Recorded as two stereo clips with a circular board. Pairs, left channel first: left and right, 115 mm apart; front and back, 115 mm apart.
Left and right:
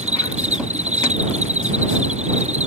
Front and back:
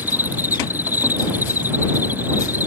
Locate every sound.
0.0 s an insect: 105° right